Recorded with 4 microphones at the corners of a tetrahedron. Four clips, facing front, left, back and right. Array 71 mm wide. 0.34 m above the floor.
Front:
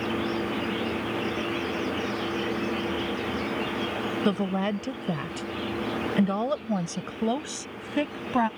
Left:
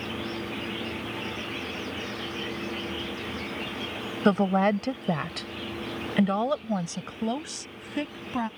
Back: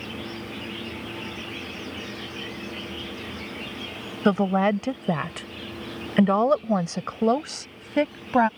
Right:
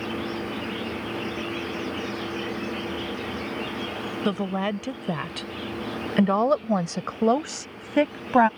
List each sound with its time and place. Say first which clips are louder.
4.2 s a woman speaking: left 5 dB, back 8 dB; 140° left; by 8.5 s 115° right